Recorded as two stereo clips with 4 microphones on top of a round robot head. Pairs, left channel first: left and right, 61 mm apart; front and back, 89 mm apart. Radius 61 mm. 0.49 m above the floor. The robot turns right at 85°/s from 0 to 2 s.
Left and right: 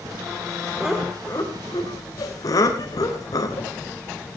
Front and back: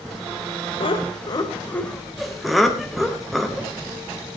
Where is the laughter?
15° right, 2.5 m; by 3.7 s 90° left, 2.5 m.